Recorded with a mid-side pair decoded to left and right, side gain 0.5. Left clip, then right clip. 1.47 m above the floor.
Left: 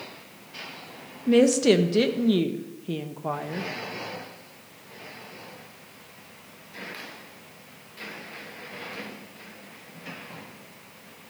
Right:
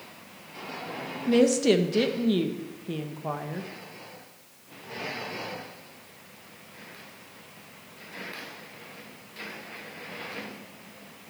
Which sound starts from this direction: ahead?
A woman speaking, at 1.3 s.